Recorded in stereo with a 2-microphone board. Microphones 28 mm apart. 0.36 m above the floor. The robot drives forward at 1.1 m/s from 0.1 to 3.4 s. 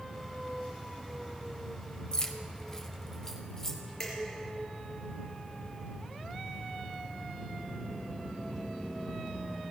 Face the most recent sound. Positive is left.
turn(degrees=15)  # may be behind; listen again after turning